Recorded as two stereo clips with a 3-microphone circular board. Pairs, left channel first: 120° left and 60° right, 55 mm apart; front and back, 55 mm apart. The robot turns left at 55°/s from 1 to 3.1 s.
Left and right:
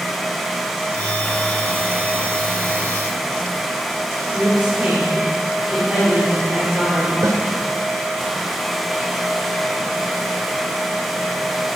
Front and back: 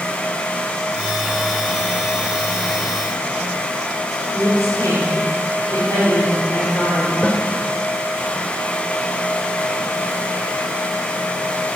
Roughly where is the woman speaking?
Ahead.